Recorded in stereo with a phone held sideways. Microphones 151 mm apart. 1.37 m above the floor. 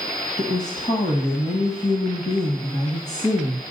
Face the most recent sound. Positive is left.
turn(degrees=55)  # may be behind; listen again after turning